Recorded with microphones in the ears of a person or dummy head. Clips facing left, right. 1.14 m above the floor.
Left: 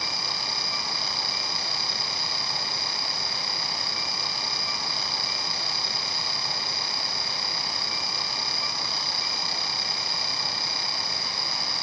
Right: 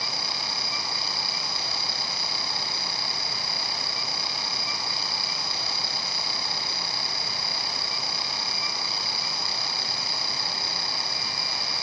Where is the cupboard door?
No cupboard door in this recording.